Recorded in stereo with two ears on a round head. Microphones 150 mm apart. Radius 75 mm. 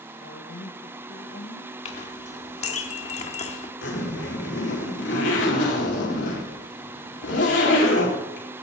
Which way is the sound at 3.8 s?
75° left (ahead or behind).